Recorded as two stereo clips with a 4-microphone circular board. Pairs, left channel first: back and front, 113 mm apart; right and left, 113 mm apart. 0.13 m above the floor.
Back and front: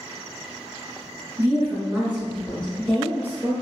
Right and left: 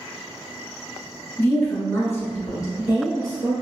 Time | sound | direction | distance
1.4 | a woman speaking | 30° right | 1.3 m